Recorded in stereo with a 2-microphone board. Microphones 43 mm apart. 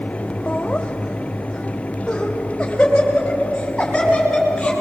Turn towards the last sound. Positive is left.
turn(degrees=15)  # may be behind; listen again after turning